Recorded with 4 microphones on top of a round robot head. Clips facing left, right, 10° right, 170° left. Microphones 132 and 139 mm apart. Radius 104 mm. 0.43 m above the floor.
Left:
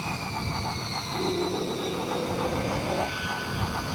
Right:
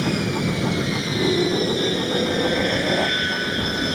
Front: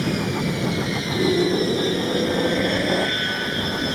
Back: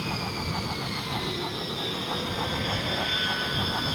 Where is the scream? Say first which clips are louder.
Right 7 dB, front 16 dB; 30° right.